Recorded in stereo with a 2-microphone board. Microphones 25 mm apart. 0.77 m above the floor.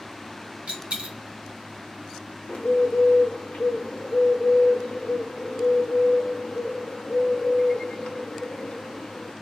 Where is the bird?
70° left (ahead or behind), 0.9 m.